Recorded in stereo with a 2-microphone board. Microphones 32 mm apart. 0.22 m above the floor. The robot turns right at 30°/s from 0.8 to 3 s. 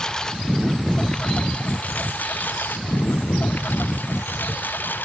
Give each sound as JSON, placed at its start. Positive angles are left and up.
{"t": 0.0, "sound": "a lawn mower", "side_deg": 20}